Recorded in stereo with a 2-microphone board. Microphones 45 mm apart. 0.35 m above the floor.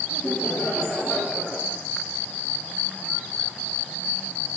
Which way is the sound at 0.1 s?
20° left (ahead or behind).